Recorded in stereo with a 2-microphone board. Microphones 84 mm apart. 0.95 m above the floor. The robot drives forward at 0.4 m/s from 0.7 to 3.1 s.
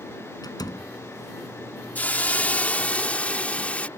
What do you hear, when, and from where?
0.4 s a door slam: 50° left (ahead or behind)
1.9 s a hiss: 20° left (ahead or behind); by 3.9 s 15° left (ahead or behind)